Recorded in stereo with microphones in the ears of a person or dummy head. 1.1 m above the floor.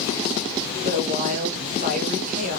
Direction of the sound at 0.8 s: 40° right (ahead or behind).